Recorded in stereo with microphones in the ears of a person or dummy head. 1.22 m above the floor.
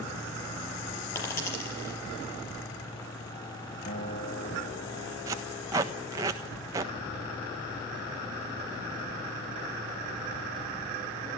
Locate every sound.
1.1 s a dropped coin: 15° left (ahead or behind), 5.5 m
3.9 s a guitar: 30° left (ahead or behind), 2.5 m
5.3 s tape being pulled: 15° right (ahead or behind), 1.3 m